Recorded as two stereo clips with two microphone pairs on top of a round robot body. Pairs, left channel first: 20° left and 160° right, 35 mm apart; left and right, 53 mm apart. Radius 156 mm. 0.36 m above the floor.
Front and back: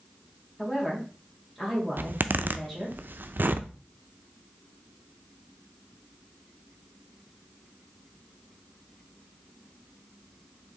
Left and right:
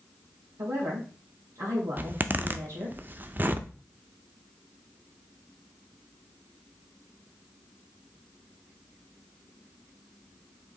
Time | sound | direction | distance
0.6 | a woman speaking | 70° right | 2 m
2.0 | a zipper | 145° right | 0.6 m